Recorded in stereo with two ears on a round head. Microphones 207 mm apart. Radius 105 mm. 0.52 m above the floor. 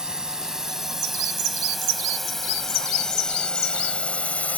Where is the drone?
5° right (ahead or behind); by 4.6 s 5° left (ahead or behind).